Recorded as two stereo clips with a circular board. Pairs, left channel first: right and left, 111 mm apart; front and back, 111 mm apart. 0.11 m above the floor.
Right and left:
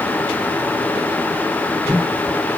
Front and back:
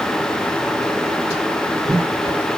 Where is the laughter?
No laughter in this recording.